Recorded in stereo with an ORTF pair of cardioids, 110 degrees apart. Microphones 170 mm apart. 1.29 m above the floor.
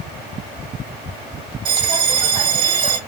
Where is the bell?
25° right, 1.2 m.